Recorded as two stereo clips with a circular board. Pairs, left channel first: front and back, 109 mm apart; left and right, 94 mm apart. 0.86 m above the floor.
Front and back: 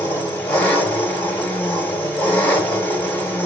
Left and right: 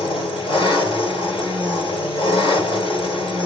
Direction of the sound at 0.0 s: 75° left.